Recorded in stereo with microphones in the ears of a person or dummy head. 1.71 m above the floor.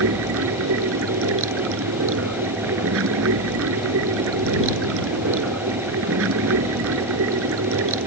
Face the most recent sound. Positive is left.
turn(degrees=-60)  # may be behind; listen again after turning